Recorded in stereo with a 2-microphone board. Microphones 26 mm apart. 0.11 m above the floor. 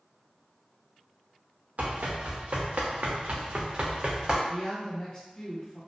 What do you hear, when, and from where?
1.8 s running footsteps: 70° right (ahead or behind), 1.2 m; by 4.4 s 35° right (ahead or behind), 1.0 m
4.5 s a woman speaking: 30° left (ahead or behind), 1.8 m